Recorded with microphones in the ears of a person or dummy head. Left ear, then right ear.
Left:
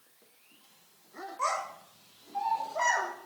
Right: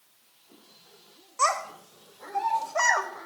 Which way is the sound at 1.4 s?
65° right (ahead or behind).